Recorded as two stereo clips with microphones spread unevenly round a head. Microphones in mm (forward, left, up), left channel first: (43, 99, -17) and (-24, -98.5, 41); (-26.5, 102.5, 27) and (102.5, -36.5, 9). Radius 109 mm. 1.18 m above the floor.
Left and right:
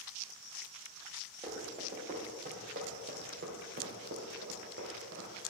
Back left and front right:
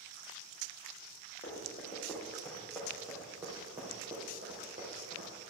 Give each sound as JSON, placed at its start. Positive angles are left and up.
{"t": 1.4, "sound": "running footsteps", "azimuth_deg": -165, "distance_m": 3.0}